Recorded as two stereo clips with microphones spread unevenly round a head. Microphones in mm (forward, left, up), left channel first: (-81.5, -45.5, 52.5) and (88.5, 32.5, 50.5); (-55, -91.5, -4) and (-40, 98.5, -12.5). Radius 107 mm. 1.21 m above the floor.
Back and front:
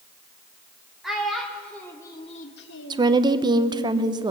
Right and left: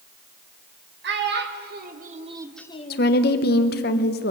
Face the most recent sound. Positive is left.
turn(degrees=-45)